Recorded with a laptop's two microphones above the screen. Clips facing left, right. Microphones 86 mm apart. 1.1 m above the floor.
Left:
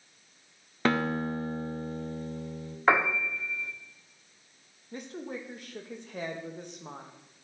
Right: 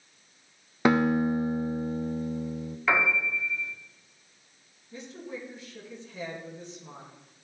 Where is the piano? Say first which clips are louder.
Left 2 dB; 45° left (ahead or behind), 1.3 m.